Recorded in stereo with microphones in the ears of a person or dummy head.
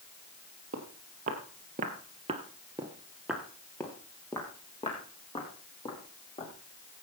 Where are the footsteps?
40° right (ahead or behind), 2.5 m; by 6.5 s 25° left (ahead or behind), 4.5 m.